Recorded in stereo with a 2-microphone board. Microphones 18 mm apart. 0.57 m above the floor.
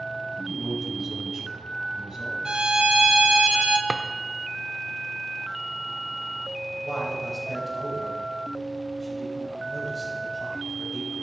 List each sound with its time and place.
0.4 s a man speaking: 40° right (ahead or behind), 3.5 m
2.5 s a violin: 65° right (ahead or behind), 0.9 m
3.9 s a drawer: 20° right (ahead or behind), 0.6 m
6.8 s a man speaking: 5° right (ahead or behind), 3 m